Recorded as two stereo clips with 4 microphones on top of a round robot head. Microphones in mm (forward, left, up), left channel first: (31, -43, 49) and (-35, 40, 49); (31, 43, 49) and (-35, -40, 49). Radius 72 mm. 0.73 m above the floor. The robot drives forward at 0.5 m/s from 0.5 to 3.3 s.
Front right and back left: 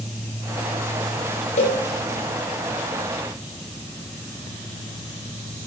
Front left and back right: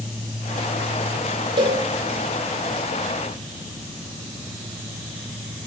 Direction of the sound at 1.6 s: 75° right.